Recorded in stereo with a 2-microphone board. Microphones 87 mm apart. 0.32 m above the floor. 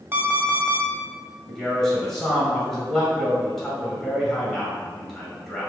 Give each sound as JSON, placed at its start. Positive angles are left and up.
{"t": 0.1, "sound": "an alarm clock", "side_deg": -30, "distance_m": 0.7}
{"t": 1.5, "sound": "a man speaking", "side_deg": 5, "distance_m": 1.7}